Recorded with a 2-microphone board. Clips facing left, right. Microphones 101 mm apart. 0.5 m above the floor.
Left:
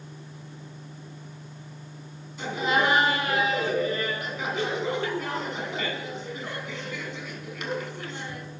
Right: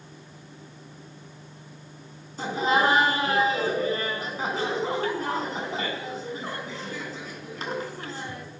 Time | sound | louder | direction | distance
2.4 | laughter | right 2 dB | 35° right (ahead or behind) | 4.5 m